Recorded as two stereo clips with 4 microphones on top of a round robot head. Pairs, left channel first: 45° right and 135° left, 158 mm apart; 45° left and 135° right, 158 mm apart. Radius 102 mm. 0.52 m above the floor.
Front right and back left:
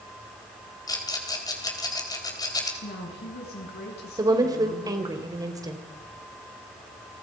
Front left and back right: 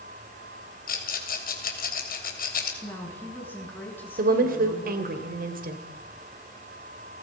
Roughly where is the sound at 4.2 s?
Behind right.